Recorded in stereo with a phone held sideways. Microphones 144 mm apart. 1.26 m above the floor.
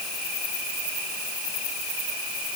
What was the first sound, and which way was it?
Only background noise.